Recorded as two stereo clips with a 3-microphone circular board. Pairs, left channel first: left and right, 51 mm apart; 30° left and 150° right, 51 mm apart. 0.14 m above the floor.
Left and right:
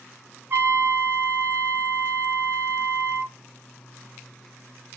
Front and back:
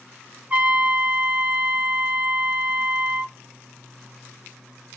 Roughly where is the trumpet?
Right.